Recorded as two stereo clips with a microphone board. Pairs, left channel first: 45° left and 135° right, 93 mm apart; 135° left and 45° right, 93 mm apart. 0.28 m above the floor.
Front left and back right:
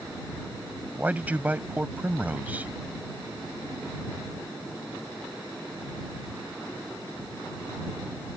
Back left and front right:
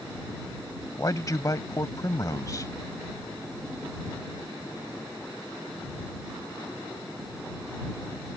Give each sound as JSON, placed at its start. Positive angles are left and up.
{"t": 1.0, "sound": "a man speaking", "azimuth_deg": 160}